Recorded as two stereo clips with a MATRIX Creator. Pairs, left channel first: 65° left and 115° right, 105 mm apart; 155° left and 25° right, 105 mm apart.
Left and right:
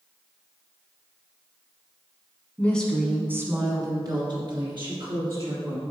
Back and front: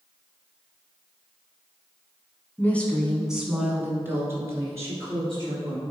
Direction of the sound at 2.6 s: 115° left.